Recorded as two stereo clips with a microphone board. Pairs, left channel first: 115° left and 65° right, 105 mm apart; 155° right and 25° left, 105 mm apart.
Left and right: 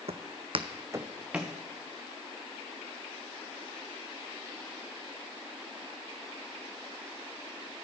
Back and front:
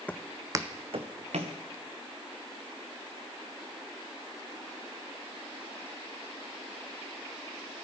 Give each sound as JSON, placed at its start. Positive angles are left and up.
{"t": 0.1, "sound": "footsteps", "azimuth_deg": -80, "distance_m": 0.7}